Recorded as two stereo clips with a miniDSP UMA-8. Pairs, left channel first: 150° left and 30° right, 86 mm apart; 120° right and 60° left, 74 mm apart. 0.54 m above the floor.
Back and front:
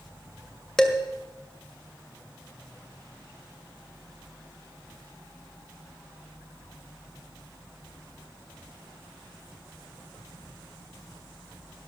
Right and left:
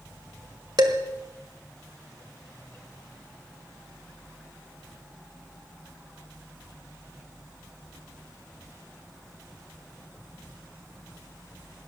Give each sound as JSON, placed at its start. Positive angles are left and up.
{"t": 0.8, "sound": "dishes clattering", "azimuth_deg": 65, "distance_m": 1.8}